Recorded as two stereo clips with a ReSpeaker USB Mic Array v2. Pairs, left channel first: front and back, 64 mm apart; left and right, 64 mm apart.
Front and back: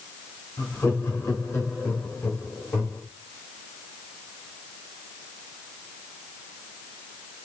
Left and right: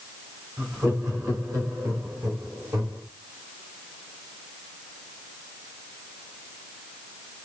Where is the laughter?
50° right, 4 m; by 3.0 s 65° right, 3 m.